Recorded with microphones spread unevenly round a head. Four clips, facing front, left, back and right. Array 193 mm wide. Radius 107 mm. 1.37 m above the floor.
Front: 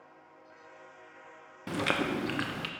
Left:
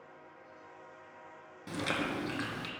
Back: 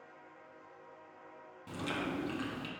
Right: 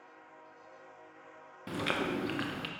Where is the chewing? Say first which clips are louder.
Right 1 dB, front 7 dB; 10° right, 0.7 m.